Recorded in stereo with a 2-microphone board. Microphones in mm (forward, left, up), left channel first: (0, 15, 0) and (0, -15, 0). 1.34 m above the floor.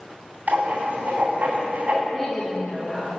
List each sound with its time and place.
0.5 s writing: 60° right (ahead or behind), 2.5 m
2.1 s a woman speaking: 15° left (ahead or behind), 1.3 m